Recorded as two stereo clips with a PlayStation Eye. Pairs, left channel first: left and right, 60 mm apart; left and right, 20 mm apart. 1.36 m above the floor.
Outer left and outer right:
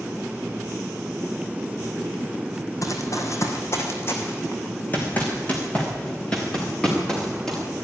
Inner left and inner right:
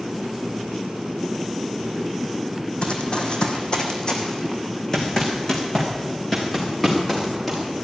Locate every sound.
2.8 s running footsteps: 60° left (ahead or behind), 3 m; by 7.6 s 10° left (ahead or behind), 7 m